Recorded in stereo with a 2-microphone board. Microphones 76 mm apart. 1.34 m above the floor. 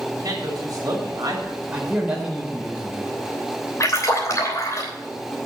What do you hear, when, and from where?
0.1 s a man speaking: 45° right (ahead or behind), 3 m
1.7 s a man speaking: 15° right (ahead or behind), 4 m
3.8 s a splash: 45° left (ahead or behind), 3 m